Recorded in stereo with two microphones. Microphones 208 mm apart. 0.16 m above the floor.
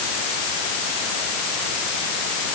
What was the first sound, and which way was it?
Only background noise.